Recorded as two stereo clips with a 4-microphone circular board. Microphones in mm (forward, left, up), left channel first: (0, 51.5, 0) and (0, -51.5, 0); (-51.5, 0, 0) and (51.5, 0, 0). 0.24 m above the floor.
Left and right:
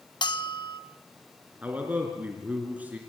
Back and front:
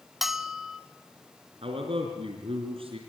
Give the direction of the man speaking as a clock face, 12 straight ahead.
1 o'clock.